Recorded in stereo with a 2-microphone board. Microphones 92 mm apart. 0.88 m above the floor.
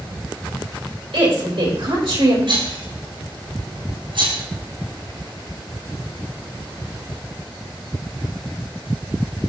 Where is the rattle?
70° right (ahead or behind), 4.5 m.